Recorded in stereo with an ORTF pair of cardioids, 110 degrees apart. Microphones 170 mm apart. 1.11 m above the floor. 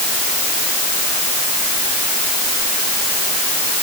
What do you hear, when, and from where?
Only background noise.